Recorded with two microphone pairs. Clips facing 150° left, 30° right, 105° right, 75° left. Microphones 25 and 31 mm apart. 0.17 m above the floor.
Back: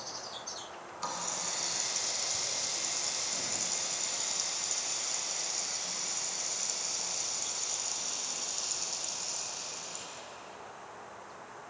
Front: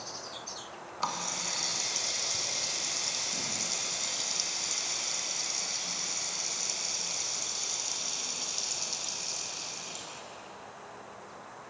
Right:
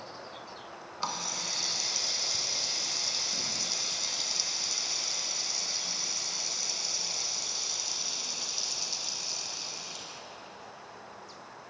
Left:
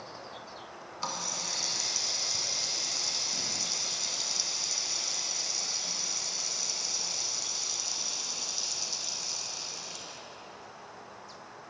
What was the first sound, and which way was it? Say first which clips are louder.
A running tap: front 4 dB, right 1 dB; 35° right.